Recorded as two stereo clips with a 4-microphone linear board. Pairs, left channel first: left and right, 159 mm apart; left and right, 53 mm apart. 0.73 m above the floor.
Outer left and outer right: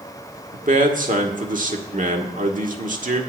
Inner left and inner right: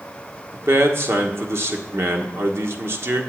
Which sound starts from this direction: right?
A man speaking, at 0.5 s.